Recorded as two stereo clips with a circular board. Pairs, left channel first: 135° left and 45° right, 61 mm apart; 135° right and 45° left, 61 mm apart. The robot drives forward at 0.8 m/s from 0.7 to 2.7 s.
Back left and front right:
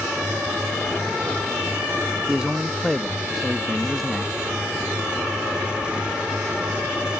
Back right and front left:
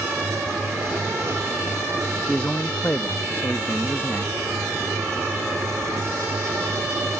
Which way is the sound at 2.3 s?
75° right.